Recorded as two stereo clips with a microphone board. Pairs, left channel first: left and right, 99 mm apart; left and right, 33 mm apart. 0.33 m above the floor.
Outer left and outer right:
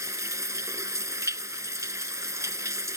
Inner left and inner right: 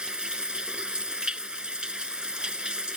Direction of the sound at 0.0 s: 30° right (ahead or behind).